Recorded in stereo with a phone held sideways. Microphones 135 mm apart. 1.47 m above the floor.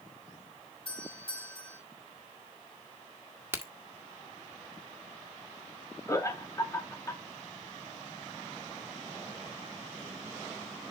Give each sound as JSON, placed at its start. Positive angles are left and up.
{"t": 0.8, "sound": "a doorbell", "side_deg": 45, "distance_m": 3.5}
{"t": 3.5, "sound": "a crack", "side_deg": -15, "distance_m": 1.7}
{"t": 6.1, "sound": "laughter", "side_deg": 25, "distance_m": 1.7}